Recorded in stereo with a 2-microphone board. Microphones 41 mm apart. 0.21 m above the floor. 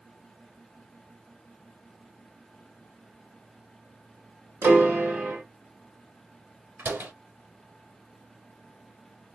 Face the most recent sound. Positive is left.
turn(degrees=-55)  # may be behind; listen again after turning